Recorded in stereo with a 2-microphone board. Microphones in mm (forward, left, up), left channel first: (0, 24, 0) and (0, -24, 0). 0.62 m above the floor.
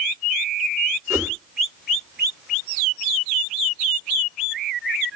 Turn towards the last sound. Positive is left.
turn(degrees=-65)  # may be behind; listen again after turning